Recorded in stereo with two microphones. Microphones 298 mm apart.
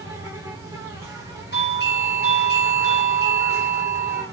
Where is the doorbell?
35° left (ahead or behind), 2.5 m.